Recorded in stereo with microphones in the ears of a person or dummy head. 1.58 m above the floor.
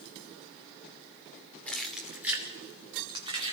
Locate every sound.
1.7 s keys jangling: centre (ahead or behind), 2.5 m; by 3.5 s 35° right (ahead or behind), 4 m